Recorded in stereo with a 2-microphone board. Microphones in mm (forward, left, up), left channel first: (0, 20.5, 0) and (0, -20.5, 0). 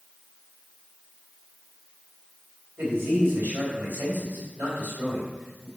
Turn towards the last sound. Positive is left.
turn(degrees=-65)  # may be behind; listen again after turning